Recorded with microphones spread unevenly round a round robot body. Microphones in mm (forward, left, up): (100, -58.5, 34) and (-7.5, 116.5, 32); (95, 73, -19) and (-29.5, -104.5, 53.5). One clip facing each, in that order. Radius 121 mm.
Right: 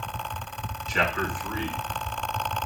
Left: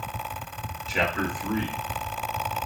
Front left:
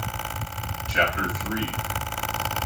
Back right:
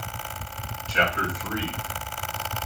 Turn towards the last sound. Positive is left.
turn(degrees=115)